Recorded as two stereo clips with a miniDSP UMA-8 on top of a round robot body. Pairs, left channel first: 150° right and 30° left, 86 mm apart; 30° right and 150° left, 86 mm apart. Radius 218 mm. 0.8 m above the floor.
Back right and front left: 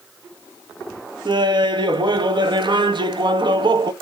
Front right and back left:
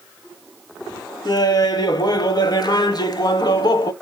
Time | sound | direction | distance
1.2 | laughter | 5° left | 1.5 m